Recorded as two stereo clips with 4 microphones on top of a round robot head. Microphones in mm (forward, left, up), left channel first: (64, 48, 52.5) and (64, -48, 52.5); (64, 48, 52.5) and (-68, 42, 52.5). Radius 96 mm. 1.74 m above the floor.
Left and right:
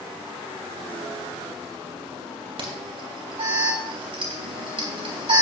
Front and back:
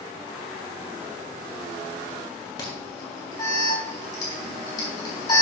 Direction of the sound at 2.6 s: 65° right.